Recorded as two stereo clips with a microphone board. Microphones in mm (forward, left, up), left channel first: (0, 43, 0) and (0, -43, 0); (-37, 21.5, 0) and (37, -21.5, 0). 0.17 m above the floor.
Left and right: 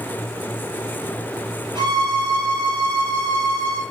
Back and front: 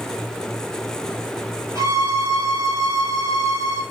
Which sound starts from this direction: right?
A violin, at 1.8 s.